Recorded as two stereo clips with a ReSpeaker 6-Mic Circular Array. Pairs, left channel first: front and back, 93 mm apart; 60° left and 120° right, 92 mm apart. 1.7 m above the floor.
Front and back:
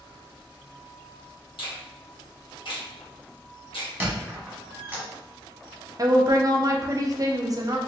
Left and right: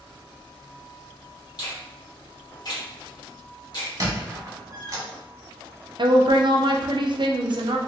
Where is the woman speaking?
135° right, 0.5 m.